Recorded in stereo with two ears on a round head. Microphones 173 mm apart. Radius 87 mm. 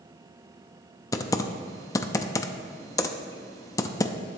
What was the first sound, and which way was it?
Typing on a keyboard, 20° left (ahead or behind).